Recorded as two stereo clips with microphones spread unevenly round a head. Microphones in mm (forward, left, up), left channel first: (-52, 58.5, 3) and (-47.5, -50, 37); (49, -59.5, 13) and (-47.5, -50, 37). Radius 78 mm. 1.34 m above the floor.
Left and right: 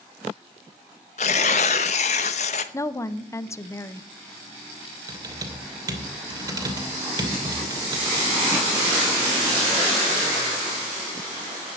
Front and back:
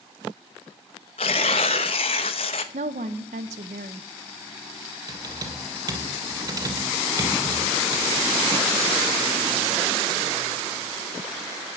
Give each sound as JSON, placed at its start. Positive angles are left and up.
{"t": 1.2, "sound": "tearing paper", "azimuth_deg": 45, "distance_m": 0.7}
{"t": 2.7, "sound": "a woman speaking", "azimuth_deg": 160, "distance_m": 0.9}
{"t": 5.1, "sound": "typing on a keyboard", "azimuth_deg": -140, "distance_m": 3.0}